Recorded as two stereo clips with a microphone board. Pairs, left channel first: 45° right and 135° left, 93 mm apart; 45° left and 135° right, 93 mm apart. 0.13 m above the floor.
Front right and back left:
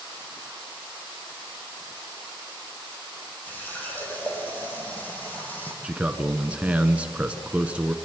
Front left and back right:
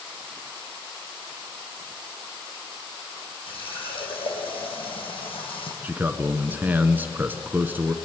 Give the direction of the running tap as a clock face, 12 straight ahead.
11 o'clock.